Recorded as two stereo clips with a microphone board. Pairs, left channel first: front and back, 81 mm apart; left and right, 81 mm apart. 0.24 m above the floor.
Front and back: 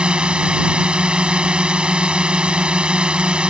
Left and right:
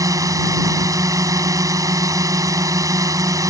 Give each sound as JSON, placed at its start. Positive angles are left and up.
{"t": 0.0, "sound": "a drone", "azimuth_deg": -105}